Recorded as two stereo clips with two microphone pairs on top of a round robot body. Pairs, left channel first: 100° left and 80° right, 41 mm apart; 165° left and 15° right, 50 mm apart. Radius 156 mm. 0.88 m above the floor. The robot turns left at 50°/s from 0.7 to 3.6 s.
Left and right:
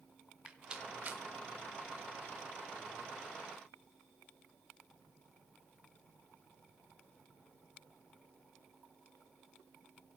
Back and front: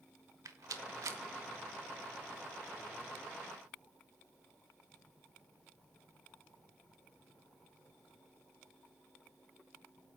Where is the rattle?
20° right, 0.7 m; by 1.2 s 45° right, 0.7 m.